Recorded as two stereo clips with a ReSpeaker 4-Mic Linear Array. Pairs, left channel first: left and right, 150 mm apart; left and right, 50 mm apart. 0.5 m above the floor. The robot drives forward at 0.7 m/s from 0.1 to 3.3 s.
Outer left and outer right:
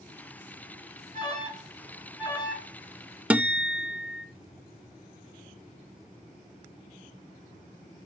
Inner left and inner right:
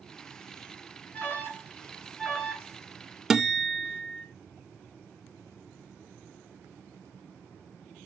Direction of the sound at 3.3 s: 10° right (ahead or behind).